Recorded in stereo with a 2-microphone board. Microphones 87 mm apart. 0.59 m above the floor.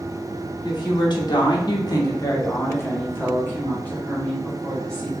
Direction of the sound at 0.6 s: 55° left (ahead or behind).